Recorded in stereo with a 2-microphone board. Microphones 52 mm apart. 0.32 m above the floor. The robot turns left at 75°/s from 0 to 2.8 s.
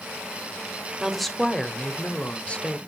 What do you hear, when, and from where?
1.0 s a woman speaking: 5° right (ahead or behind), 1.4 m; by 2.8 s 20° left (ahead or behind), 1.4 m